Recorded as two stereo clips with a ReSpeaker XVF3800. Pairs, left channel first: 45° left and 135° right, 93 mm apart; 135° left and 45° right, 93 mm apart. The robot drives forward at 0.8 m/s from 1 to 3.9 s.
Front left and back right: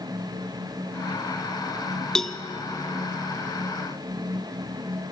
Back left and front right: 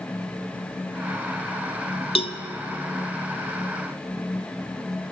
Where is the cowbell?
130° left, 1.0 m; by 2.4 s 135° left, 1.1 m.